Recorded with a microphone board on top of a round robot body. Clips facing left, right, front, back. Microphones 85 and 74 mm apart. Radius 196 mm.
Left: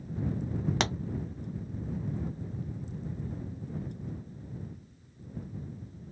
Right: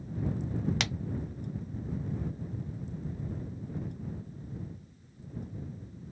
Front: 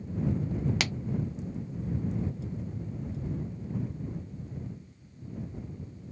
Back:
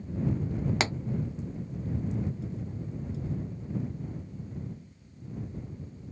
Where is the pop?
130° left.